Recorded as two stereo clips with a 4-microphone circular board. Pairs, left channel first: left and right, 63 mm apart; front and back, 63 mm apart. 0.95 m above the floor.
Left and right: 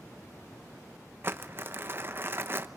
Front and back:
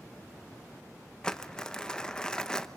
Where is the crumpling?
70° right, 1.0 m.